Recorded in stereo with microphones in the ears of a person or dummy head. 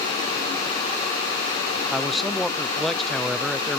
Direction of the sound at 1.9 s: 5° left (ahead or behind).